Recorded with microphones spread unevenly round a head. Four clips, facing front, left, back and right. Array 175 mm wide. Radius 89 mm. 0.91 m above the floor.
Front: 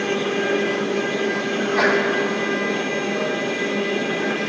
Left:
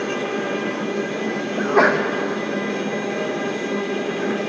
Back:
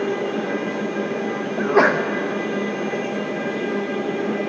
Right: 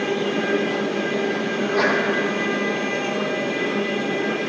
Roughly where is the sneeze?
Behind left.